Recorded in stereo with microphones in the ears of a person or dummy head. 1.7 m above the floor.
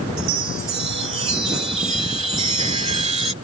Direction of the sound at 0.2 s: 30° right (ahead or behind).